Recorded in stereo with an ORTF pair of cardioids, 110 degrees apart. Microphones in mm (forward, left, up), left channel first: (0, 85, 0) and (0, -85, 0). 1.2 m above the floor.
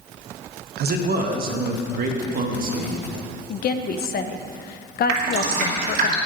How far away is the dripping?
About 3 m.